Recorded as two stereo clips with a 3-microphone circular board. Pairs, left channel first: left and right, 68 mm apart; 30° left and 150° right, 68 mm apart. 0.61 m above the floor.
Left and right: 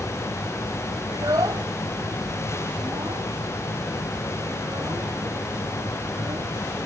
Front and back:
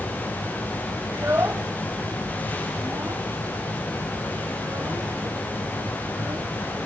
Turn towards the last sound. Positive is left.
turn(degrees=-110)